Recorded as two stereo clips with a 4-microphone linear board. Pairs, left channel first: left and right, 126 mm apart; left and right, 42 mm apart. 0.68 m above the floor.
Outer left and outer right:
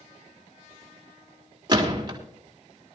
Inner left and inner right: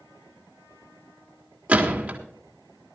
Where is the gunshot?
35° right (ahead or behind), 2.5 m.